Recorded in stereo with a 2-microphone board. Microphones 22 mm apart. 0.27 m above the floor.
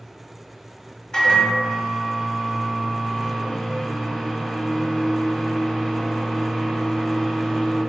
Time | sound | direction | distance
1.1 | a microwave | 35° left (ahead or behind) | 1.2 m